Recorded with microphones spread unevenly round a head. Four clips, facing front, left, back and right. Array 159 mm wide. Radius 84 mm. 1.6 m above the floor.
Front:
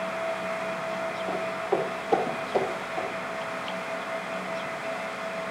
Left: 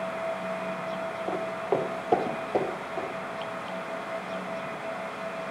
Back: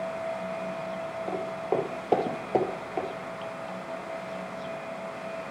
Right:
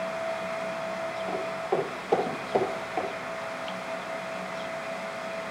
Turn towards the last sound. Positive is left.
turn(degrees=-160)